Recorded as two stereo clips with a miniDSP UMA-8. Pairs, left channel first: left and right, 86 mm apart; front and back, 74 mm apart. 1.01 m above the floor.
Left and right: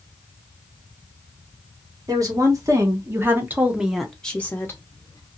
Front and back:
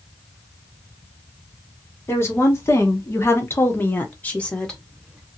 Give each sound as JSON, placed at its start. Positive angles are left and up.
{"t": 2.1, "sound": "a woman speaking", "azimuth_deg": -50, "distance_m": 1.5}